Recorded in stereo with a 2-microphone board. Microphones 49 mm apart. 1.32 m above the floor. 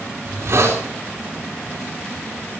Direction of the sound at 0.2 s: 65° right (ahead or behind).